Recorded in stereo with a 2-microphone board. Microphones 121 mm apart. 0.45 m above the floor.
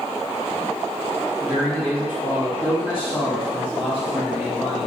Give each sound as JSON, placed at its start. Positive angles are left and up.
{"t": 1.4, "sound": "a man speaking", "side_deg": -15, "distance_m": 1.3}